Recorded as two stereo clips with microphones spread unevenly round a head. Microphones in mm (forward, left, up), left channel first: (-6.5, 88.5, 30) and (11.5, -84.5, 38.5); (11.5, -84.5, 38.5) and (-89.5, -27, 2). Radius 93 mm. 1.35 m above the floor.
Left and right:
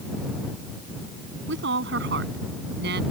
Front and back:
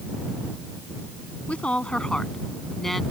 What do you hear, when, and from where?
1.5 s a woman speaking: 105° right; by 3.0 s 115° right